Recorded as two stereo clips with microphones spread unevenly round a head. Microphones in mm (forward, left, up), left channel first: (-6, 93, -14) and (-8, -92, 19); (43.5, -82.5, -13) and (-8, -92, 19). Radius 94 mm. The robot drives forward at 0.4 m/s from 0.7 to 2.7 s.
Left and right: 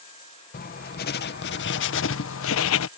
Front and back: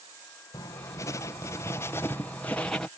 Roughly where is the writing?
Ahead left.